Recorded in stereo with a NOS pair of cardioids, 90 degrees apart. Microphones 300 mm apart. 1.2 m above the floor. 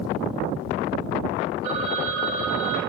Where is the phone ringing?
70° right, 3 m.